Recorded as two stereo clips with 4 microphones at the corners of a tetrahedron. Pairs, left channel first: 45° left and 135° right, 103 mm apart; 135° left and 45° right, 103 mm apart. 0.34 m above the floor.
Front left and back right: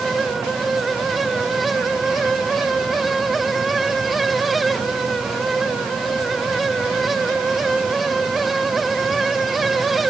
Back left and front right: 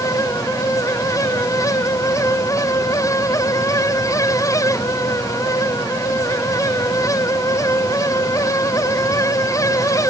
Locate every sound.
Only background noise.